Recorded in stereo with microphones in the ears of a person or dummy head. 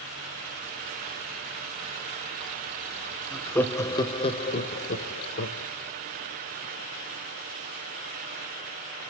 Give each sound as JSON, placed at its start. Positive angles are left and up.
{"t": 3.3, "sound": "laughter", "side_deg": 5, "distance_m": 1.0}